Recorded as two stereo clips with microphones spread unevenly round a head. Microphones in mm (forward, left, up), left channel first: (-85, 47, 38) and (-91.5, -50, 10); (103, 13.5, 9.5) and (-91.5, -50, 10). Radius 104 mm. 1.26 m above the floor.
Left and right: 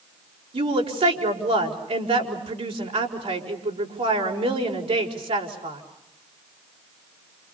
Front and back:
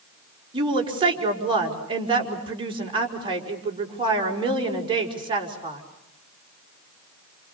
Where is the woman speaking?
95° right, 5.5 m.